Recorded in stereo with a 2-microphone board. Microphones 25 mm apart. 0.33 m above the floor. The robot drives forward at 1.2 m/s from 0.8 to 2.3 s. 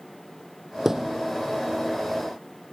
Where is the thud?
15° right (ahead or behind); by 1.2 s 20° right (ahead or behind).